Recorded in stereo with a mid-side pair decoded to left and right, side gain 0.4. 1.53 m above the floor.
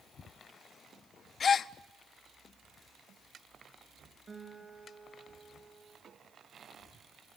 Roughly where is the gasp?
Ahead left.